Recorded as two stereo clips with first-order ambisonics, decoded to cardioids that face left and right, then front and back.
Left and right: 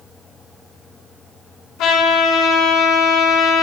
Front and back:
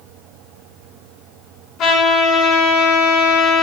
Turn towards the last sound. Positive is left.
turn(degrees=50)